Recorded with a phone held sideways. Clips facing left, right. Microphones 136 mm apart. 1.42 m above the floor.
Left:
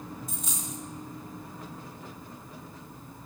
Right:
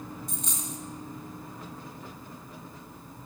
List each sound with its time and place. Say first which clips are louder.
0.3 s a dropped coin: right 1 dB; centre (ahead or behind), 1.7 m